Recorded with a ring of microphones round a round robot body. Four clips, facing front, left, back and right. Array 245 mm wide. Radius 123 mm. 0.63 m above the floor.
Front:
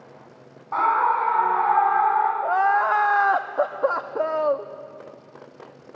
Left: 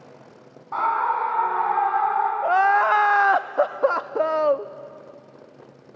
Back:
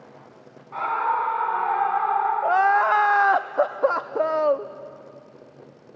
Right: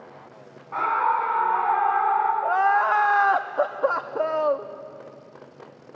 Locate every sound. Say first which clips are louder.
0.7 s a scream: even, front 4 dB; 25° left, 6 m; by 2.3 s 20° left, 4.5 m
2.4 s crying: left 2 dB, back 1 dB; 120° left, 0.5 m